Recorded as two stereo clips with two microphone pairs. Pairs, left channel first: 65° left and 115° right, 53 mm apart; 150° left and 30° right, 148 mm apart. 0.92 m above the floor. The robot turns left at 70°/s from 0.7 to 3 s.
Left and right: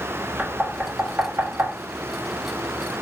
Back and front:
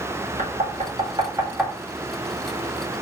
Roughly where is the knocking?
Ahead right.